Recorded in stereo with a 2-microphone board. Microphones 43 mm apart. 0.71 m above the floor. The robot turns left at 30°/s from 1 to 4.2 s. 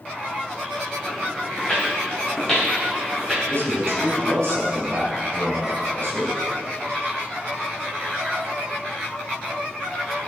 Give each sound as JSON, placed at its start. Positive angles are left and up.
{"t": 1.6, "sound": "footsteps", "side_deg": 20, "distance_m": 2.5}
{"t": 3.5, "sound": "a man speaking", "side_deg": -70, "distance_m": 4.0}